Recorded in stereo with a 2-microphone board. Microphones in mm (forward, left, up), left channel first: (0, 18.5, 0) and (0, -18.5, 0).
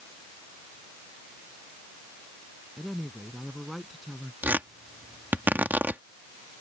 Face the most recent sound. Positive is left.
turn(degrees=-60)  # may be behind; listen again after turning